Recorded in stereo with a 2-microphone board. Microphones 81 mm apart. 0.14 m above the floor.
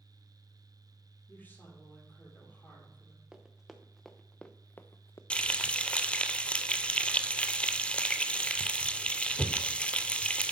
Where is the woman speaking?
25° left (ahead or behind), 4 m.